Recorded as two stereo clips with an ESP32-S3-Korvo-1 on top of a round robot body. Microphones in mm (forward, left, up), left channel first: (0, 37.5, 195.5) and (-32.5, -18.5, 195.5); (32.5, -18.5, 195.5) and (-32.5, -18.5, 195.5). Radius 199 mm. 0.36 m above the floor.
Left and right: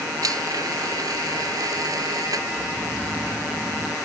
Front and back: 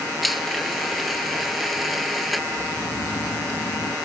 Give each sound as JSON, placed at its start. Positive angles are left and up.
{"t": 0.2, "sound": "a blender", "azimuth_deg": -90}
{"t": 2.5, "sound": "snoring", "azimuth_deg": -35}